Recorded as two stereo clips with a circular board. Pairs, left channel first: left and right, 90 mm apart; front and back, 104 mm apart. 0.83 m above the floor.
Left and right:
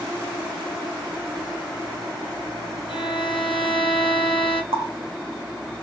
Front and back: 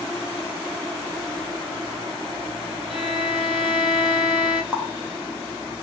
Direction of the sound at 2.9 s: 90° left.